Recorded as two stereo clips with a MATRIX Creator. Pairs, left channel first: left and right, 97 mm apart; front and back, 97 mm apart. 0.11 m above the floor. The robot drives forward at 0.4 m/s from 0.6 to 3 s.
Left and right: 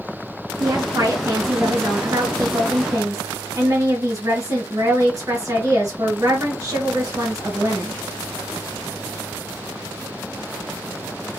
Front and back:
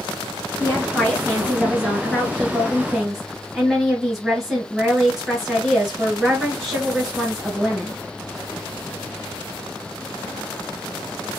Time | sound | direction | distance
0.6 | a woman speaking | 55° right | 2 m